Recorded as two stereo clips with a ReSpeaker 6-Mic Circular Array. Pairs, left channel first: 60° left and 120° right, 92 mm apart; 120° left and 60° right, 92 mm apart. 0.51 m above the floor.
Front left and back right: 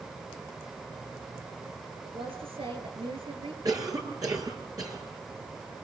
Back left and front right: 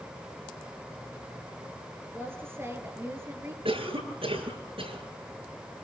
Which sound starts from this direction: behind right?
A woman speaking, at 2.0 s.